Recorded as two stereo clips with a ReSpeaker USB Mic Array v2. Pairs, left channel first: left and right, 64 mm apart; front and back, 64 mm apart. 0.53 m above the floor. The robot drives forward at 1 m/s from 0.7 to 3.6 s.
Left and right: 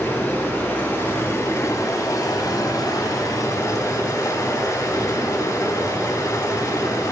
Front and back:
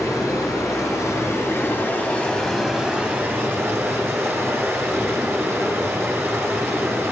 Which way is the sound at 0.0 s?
35° left.